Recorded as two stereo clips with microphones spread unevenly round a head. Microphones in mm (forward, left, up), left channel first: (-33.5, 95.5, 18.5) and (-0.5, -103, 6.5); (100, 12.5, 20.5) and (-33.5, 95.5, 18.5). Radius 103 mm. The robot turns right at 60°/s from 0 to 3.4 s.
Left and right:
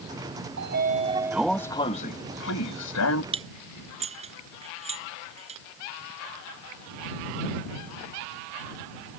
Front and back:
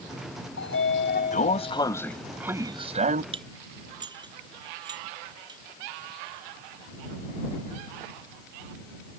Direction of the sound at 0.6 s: 45° right.